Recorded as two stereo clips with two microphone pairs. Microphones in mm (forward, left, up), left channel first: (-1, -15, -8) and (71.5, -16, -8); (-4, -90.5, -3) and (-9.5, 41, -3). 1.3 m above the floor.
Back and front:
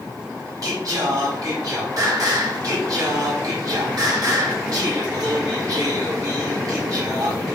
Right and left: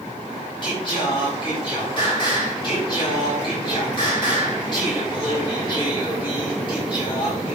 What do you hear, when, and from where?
0.6 s singing: 35° right, 4 m